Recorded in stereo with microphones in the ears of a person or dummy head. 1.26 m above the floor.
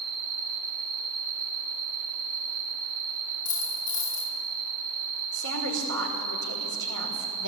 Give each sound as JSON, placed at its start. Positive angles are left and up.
{"t": 0.0, "sound": "an insect", "side_deg": -75, "distance_m": 4.5}
{"t": 3.5, "sound": "a dropped coin", "side_deg": 25, "distance_m": 8.0}
{"t": 5.3, "sound": "a woman speaking", "side_deg": -75, "distance_m": 5.0}